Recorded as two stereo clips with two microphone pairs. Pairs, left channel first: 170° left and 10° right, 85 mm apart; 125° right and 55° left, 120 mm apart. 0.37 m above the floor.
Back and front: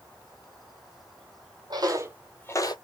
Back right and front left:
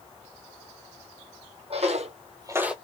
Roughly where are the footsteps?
Ahead left.